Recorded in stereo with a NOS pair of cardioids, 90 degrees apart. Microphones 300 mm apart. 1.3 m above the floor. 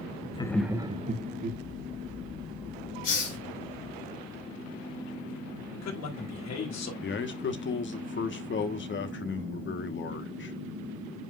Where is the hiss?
60° left, 4 m.